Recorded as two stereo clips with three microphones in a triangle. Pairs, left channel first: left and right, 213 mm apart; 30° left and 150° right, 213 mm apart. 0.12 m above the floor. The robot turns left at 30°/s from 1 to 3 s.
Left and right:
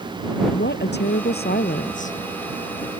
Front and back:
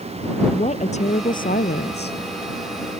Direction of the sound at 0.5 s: 80° left.